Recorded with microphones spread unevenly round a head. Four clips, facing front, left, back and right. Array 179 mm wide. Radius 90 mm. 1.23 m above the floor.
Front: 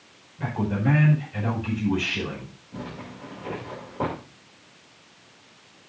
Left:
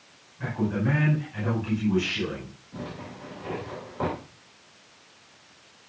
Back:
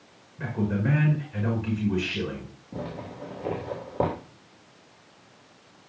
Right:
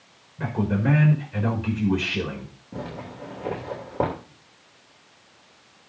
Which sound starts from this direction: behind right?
A zipper, at 2.7 s.